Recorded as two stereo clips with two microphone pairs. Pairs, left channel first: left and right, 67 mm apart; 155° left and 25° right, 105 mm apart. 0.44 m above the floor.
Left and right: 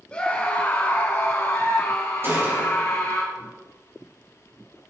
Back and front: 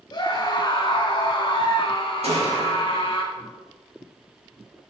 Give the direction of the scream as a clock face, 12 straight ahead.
7 o'clock.